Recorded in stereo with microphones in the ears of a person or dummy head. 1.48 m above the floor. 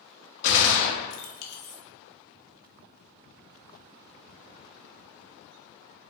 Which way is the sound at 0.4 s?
60° left (ahead or behind).